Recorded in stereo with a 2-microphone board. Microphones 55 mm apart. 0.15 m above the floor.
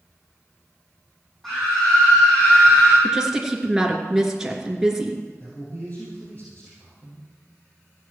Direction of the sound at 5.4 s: 35° left (ahead or behind).